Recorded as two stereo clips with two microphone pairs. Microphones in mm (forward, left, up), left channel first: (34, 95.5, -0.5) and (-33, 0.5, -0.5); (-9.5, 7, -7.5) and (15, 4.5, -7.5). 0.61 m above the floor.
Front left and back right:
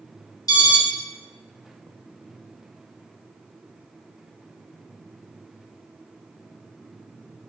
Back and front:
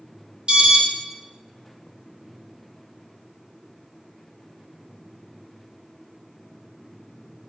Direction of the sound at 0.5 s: 10° left.